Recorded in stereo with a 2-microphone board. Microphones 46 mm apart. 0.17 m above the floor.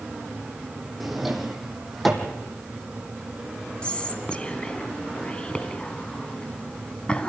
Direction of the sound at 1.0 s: Centre (ahead or behind).